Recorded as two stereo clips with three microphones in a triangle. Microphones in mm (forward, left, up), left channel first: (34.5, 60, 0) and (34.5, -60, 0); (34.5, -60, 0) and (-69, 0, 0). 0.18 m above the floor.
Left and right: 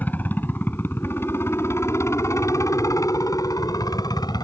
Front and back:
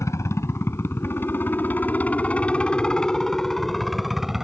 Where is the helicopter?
20° left; by 4.5 s 65° left.